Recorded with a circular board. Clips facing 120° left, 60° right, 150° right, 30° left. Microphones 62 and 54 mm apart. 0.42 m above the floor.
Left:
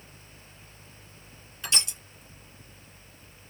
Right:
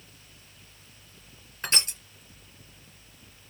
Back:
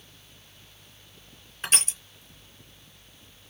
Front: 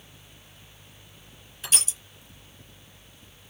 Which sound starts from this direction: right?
Crushing, at 1.6 s.